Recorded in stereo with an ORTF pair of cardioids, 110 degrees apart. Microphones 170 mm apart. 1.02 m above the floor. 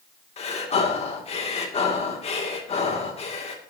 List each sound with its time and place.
0.4 s breathing: 35° left, 2.5 m